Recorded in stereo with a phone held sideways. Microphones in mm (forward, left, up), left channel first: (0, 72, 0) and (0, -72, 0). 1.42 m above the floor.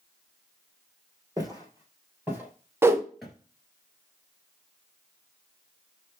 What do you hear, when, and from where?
1.4 s footsteps: 25° right (ahead or behind), 1.9 m; by 3.3 s 5° left (ahead or behind), 1.5 m
2.8 s a whoosh: 15° right (ahead or behind), 0.5 m